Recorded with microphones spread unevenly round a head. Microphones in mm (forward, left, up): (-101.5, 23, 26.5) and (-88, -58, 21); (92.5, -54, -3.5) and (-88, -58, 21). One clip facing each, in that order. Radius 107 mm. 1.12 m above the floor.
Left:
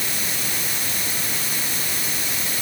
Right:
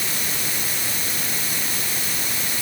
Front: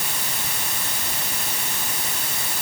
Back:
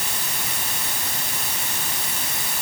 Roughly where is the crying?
I don't hear crying.